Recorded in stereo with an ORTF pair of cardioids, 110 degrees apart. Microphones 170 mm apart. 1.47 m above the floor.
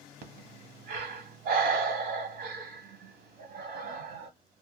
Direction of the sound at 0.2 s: 65° right.